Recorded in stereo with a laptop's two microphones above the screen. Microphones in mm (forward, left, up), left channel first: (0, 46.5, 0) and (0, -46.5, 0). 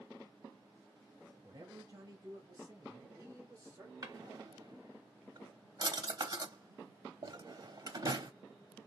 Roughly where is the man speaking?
Right.